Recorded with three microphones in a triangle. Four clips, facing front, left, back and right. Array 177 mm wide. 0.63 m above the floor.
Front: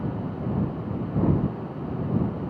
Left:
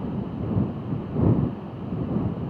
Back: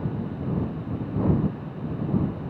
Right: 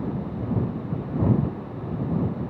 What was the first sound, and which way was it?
Only background noise.